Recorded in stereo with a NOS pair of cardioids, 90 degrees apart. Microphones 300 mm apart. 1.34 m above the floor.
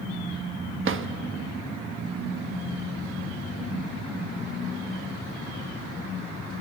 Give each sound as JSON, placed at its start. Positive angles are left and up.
{"t": 0.8, "sound": "a drawer", "azimuth_deg": -45, "distance_m": 1.3}